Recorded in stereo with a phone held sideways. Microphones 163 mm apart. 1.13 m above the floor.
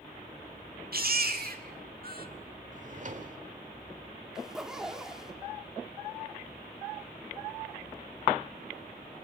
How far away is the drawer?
About 1.6 m.